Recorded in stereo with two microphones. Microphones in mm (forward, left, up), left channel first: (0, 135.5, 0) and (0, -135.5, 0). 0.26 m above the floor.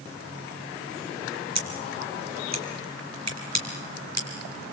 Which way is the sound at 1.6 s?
70° right (ahead or behind).